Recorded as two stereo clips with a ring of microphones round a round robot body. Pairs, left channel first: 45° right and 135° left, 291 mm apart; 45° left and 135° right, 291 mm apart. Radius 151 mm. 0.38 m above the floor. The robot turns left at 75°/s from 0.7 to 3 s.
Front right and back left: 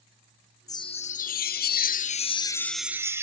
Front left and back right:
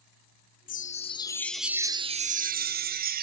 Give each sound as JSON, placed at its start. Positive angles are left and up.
{"t": 0.7, "sound": "a chime", "azimuth_deg": 20, "distance_m": 0.5}